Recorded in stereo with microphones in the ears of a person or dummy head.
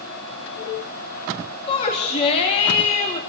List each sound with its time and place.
1.7 s a shout: 35° left (ahead or behind), 3.5 m